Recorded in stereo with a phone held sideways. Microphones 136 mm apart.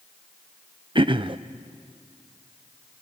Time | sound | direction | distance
0.9 | throat clearing | 40° right (ahead or behind) | 0.6 m